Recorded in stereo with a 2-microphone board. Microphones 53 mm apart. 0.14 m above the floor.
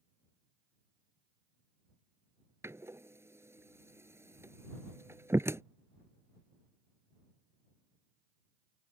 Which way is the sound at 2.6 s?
55° right (ahead or behind).